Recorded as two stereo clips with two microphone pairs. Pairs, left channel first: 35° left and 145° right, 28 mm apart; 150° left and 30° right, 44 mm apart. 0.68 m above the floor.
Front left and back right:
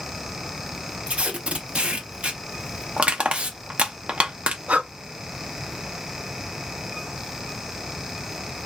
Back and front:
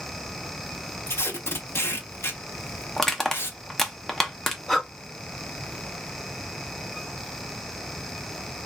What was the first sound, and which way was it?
Tape being pulled, 175° left.